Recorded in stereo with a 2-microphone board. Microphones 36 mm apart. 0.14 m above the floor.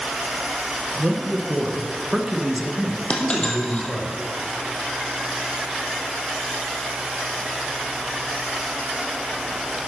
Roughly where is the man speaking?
Centre.